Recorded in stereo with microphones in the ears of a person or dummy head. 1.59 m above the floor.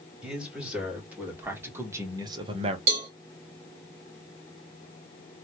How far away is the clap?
No clap in this recording.